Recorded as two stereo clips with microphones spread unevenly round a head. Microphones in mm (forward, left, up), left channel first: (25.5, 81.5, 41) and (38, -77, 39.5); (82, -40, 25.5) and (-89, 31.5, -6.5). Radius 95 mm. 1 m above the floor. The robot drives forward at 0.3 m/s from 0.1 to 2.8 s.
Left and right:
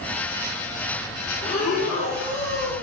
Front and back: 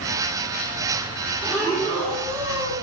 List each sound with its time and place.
1.4 s breathing: 70° left, 1.7 m; by 2.7 s 85° left, 1.6 m